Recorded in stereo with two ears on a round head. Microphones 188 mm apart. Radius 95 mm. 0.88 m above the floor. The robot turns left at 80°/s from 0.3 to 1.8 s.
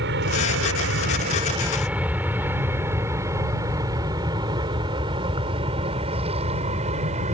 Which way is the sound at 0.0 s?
55° right (ahead or behind).